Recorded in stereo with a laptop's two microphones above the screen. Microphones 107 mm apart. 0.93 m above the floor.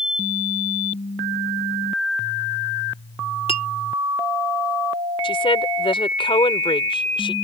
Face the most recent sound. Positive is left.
turn(degrees=55)  # may be behind; listen again after turning